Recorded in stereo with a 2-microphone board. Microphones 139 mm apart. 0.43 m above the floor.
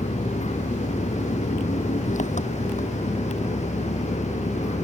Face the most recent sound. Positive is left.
turn(degrees=60)  # may be behind; listen again after turning